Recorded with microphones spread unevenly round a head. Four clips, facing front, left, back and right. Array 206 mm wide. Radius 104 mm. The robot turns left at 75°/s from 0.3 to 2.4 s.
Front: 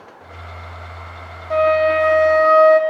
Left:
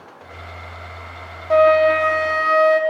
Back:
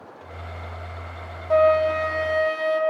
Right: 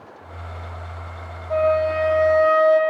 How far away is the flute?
About 1.5 m.